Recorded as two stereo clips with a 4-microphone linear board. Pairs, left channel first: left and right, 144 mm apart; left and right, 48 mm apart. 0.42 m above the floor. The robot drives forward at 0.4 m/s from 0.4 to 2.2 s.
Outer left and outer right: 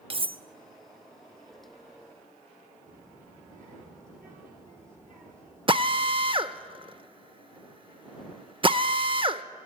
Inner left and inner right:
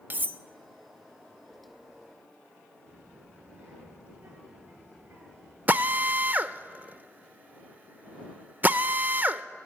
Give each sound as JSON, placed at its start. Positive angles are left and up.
{"t": 0.1, "sound": "cutlery clinking", "side_deg": -40, "distance_m": 0.5}
{"t": 2.9, "sound": "a child speaking", "side_deg": -65, "distance_m": 5.0}
{"t": 5.7, "sound": "a drill", "side_deg": -35, "distance_m": 0.5}